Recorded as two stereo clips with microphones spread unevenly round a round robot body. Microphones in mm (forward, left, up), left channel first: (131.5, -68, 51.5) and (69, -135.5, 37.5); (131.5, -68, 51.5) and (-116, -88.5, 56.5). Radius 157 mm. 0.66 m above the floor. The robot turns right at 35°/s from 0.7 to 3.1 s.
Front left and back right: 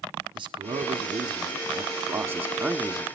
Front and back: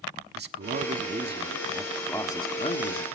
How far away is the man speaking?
About 1.2 m.